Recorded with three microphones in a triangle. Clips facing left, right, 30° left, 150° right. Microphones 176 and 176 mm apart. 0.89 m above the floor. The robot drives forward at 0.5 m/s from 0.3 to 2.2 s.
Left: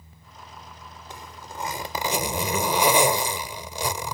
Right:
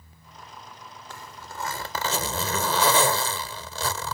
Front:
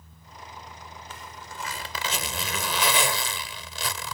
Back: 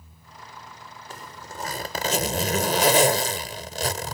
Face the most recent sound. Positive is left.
turn(degrees=165)